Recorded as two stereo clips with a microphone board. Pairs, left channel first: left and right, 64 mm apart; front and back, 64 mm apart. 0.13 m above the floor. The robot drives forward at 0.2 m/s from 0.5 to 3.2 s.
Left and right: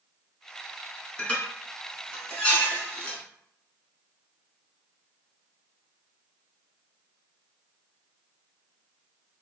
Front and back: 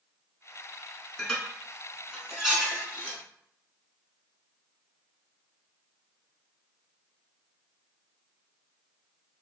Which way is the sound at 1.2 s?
75° left.